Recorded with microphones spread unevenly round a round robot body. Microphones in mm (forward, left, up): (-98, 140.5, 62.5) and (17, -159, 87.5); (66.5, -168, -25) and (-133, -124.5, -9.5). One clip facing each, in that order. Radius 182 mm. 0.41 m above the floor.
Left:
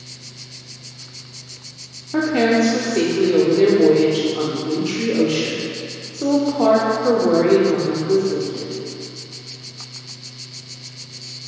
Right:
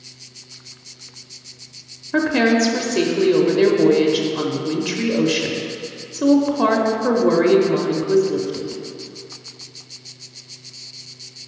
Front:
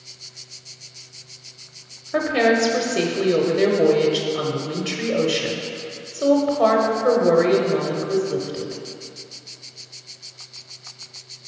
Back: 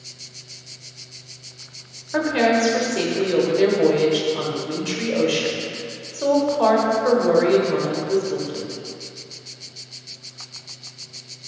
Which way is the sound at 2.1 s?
40° right.